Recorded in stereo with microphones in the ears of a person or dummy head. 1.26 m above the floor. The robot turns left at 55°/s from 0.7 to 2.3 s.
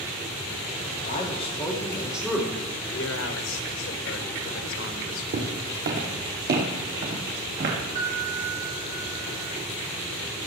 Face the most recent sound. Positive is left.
turn(degrees=-45)  # may be behind; listen again after turning